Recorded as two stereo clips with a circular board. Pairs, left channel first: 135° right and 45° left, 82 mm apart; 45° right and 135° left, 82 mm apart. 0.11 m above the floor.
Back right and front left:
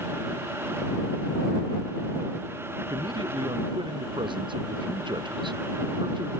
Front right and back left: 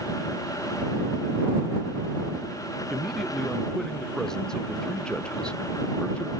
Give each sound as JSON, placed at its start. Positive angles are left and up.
{"t": 2.9, "sound": "a man speaking", "azimuth_deg": 40}